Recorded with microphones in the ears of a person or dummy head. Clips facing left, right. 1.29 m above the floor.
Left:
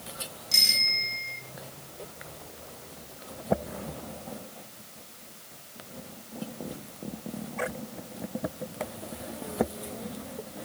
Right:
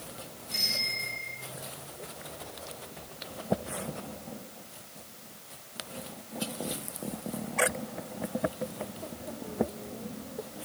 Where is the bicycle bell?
60° left (ahead or behind), 9 m.